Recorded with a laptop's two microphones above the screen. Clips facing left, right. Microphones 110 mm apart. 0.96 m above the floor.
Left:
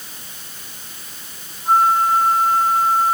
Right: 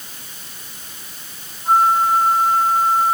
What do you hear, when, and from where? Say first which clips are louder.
1.6 s a flute: even; centre (ahead or behind)